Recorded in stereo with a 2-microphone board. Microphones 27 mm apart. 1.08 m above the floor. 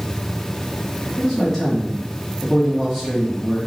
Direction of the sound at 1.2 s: 15° left (ahead or behind).